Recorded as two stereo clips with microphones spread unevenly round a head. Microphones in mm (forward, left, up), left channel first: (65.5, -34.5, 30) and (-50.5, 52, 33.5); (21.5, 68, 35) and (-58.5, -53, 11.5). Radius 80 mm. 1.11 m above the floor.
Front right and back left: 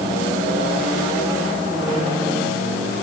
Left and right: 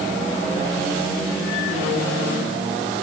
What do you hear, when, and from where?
Only background noise.